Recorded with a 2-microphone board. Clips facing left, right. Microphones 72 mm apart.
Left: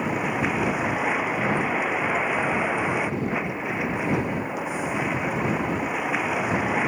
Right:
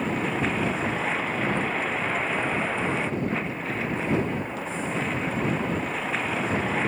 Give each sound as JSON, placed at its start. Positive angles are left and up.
{"t": 0.0, "sound": "a vehicle", "side_deg": 15}